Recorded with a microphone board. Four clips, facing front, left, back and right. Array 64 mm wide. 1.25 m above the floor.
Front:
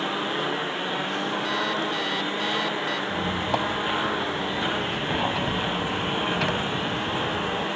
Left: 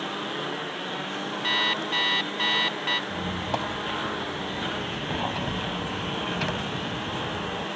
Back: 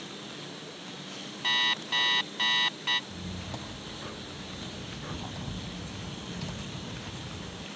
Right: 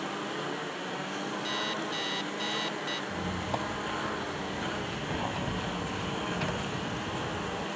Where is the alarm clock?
115° left.